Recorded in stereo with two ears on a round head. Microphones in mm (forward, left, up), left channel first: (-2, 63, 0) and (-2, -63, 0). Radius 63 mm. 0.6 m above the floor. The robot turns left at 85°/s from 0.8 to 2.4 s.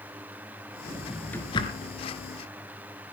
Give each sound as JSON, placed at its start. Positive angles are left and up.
{"t": 0.9, "sound": "a drawer", "side_deg": -25, "distance_m": 3.0}